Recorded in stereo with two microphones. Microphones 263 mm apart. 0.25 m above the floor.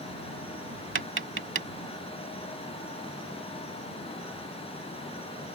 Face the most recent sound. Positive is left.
turn(degrees=-50)  # may be behind; listen again after turning